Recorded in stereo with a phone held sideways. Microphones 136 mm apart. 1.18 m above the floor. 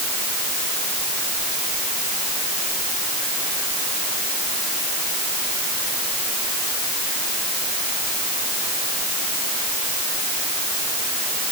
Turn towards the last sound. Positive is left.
No sound to turn to.